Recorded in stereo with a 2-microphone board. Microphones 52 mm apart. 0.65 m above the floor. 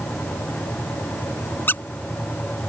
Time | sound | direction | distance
1.7 | a squeak | 45° left (ahead or behind) | ?